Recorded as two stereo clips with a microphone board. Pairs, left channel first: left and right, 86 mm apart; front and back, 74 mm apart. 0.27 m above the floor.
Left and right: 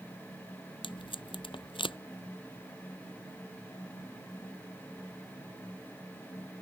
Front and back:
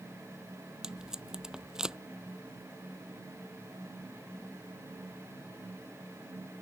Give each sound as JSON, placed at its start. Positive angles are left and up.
{"t": 0.8, "sound": "tape being pulled", "azimuth_deg": 100}